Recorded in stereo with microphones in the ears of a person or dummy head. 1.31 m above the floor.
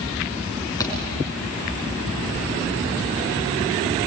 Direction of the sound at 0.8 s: 15° left (ahead or behind).